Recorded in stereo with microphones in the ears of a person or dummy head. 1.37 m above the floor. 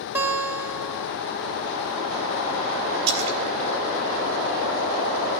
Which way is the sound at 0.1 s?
5° right (ahead or behind).